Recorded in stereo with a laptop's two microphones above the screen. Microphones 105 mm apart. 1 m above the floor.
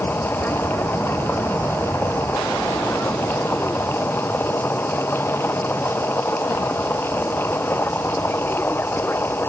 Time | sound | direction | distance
0.0 | a machine running | 20° left (ahead or behind) | ?